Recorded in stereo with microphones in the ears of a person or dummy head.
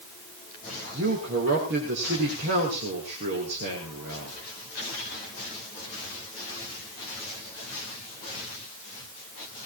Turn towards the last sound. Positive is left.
turn(degrees=-65)  # may be behind; listen again after turning